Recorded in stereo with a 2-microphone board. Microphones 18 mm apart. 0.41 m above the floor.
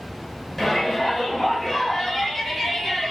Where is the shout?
10° left (ahead or behind), 7 m; by 3.1 s centre (ahead or behind), 8.5 m.